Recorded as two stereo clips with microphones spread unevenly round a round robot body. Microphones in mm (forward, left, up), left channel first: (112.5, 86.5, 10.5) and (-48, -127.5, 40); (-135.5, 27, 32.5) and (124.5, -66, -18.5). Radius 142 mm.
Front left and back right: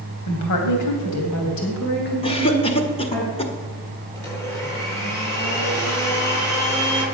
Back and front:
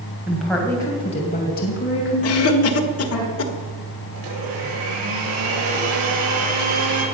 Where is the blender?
25° right, 8 m.